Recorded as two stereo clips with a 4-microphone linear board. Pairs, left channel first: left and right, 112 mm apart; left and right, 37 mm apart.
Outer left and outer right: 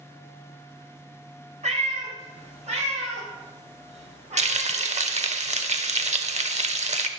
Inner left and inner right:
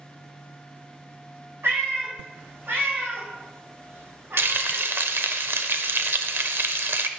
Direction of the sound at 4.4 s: 80° right.